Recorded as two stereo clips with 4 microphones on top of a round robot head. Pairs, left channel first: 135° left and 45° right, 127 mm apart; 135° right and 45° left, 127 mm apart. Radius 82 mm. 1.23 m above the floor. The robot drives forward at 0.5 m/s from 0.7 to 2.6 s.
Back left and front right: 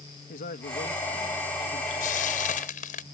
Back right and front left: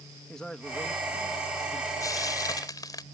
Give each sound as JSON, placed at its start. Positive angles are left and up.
{"t": 0.3, "sound": "a man speaking", "azimuth_deg": 140}
{"t": 2.0, "sound": "frying", "azimuth_deg": 160}